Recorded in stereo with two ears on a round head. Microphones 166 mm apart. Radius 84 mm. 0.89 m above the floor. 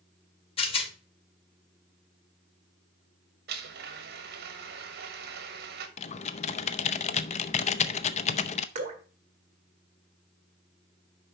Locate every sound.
0.6 s a rattle: 30° left (ahead or behind), 1.1 m
3.5 s a blender: 55° right (ahead or behind), 1.4 m
6.0 s typing on a keyboard: 35° left (ahead or behind), 0.5 m
8.8 s dripping: 35° right (ahead or behind), 2.5 m